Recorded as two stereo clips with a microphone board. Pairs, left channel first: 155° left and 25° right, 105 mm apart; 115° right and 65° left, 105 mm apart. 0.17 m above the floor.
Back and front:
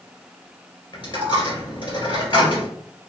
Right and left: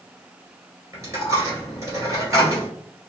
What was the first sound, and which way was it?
A dropped coin, 120° left.